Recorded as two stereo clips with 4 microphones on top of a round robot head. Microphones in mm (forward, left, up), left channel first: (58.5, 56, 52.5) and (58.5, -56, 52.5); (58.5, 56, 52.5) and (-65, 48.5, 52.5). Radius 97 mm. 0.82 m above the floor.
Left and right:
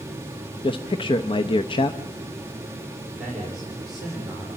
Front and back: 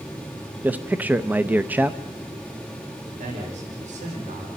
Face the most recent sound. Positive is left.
turn(degrees=-175)